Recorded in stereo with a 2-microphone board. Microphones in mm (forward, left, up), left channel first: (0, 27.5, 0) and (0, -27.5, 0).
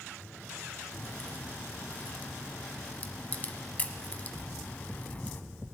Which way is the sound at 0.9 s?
30° left (ahead or behind).